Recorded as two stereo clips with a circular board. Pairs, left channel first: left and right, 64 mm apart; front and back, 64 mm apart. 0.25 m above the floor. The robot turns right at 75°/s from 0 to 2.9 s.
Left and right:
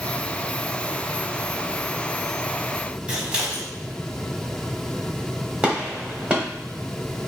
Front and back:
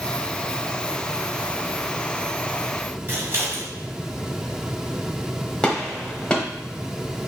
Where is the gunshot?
55° right, 1.2 m.